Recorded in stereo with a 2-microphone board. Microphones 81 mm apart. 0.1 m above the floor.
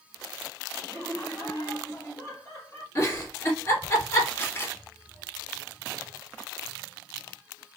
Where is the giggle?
35° left (ahead or behind), 1.9 m.